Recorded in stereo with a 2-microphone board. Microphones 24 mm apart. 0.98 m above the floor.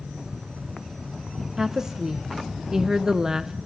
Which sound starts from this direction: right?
A woman speaking, at 1.6 s.